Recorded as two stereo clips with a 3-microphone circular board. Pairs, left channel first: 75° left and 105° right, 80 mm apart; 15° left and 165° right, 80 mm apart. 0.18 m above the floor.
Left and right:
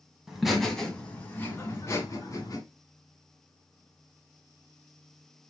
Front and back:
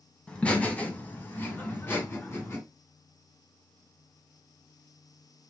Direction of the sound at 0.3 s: 30° right.